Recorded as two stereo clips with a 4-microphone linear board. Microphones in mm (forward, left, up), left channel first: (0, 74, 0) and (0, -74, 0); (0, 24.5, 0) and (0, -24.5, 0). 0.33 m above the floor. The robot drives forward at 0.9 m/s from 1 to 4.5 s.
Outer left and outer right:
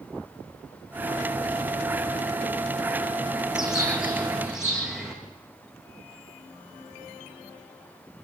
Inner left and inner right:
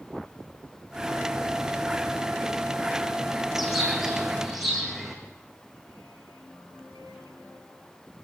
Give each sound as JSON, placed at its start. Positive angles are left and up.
{"t": 3.5, "sound": "a bird", "side_deg": -5, "distance_m": 4.0}